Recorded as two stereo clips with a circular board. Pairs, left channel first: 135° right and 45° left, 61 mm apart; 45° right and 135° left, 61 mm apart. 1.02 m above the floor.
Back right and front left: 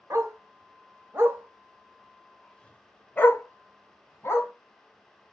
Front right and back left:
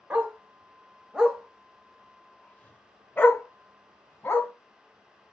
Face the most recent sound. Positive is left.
turn(degrees=-95)